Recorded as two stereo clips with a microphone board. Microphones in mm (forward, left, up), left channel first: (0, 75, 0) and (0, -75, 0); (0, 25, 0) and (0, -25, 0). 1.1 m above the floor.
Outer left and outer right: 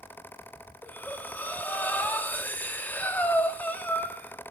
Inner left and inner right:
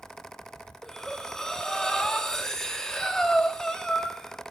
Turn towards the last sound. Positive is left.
turn(degrees=10)  # may be behind; listen again after turning